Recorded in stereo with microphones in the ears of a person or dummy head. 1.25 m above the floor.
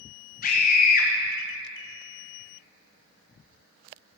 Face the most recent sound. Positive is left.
turn(degrees=55)  # may be behind; listen again after turning